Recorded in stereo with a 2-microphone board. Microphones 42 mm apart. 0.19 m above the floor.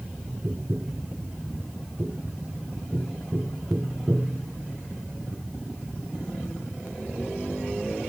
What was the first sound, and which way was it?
Tapping, 50° right (ahead or behind).